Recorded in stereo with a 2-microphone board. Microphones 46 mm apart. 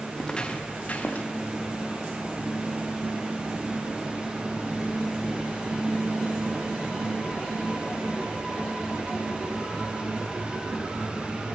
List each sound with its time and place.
0.2 s footsteps: 15° left (ahead or behind), 2 m; by 1.3 s 40° left (ahead or behind), 3.5 m